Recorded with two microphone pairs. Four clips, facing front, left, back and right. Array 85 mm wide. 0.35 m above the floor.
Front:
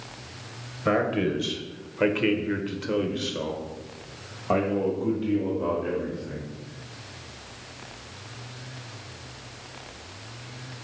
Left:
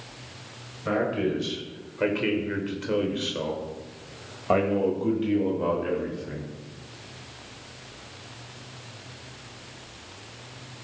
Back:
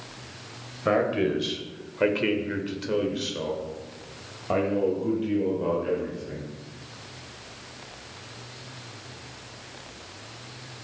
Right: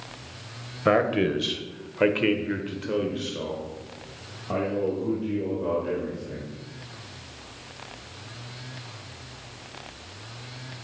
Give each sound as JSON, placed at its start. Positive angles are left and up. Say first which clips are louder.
{"t": 0.8, "sound": "a man speaking", "louder": "right 4 dB, back 1 dB", "azimuth_deg": -100, "distance_m": 1.2}